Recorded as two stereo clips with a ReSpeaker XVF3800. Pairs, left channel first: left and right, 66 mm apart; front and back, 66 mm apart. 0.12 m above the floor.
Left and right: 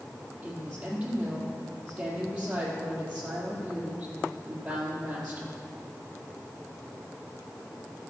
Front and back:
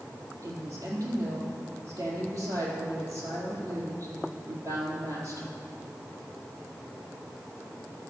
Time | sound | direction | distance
0.4 | a woman speaking | 155° right | 4 m